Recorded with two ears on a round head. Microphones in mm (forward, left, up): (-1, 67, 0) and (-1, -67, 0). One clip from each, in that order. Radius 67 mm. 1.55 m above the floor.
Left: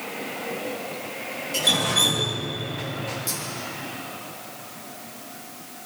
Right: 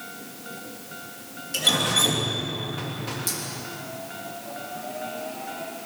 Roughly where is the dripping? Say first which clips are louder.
Left 1 dB; centre.